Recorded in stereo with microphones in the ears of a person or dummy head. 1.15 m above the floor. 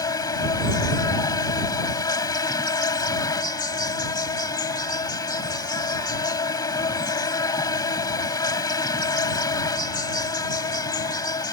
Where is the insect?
20° left (ahead or behind).